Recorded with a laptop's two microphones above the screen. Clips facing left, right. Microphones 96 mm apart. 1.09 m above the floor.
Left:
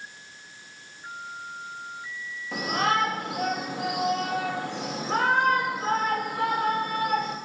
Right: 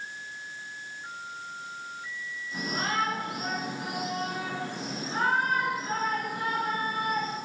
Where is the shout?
70° left (ahead or behind), 4 m.